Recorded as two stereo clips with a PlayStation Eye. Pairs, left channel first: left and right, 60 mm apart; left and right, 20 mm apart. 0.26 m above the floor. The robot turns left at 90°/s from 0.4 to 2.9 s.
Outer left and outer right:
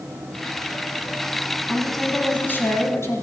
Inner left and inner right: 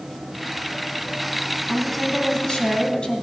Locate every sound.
1.7 s a woman speaking: 155° right, 2 m; by 3.2 s 95° left, 2 m